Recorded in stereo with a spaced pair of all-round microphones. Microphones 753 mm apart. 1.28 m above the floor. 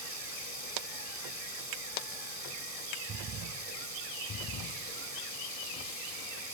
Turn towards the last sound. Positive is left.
turn(degrees=-50)  # may be behind; listen again after turning